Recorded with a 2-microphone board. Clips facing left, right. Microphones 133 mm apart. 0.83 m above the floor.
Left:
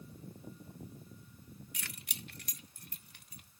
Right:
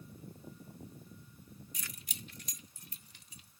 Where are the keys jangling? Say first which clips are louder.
Left 1 dB; 75° left (ahead or behind); by 3.5 s 60° left (ahead or behind).